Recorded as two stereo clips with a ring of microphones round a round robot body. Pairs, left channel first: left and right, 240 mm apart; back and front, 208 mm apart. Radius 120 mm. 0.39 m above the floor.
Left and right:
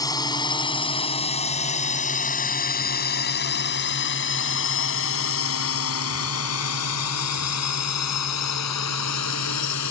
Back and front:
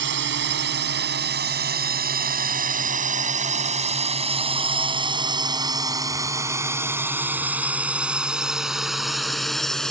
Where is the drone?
15° left; by 9.9 s 95° left.